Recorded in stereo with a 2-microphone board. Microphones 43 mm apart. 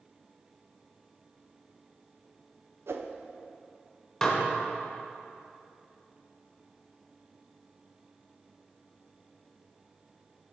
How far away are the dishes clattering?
About 1.2 m.